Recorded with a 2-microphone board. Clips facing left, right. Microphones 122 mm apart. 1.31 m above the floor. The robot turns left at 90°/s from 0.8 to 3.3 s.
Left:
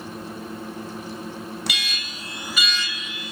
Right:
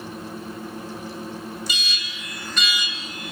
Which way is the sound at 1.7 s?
85° left.